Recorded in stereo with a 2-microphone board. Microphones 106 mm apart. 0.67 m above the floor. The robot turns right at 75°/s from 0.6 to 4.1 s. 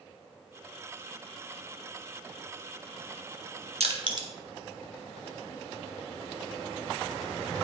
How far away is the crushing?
About 1.3 m.